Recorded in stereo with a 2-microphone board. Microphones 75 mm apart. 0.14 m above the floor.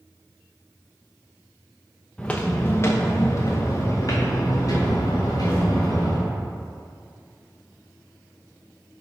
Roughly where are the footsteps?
Centre.